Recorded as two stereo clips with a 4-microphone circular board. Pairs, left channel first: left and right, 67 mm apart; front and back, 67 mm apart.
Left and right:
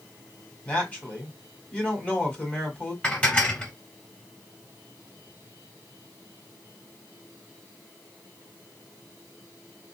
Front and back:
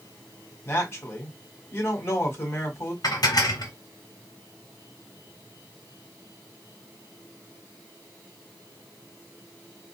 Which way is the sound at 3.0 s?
20° left.